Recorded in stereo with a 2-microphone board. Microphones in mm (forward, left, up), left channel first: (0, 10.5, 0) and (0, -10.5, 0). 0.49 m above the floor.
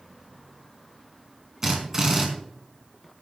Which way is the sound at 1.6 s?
20° right (ahead or behind).